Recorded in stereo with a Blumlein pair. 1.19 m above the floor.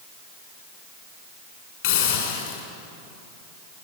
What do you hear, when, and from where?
1.8 s a hiss: 40° left, 7 m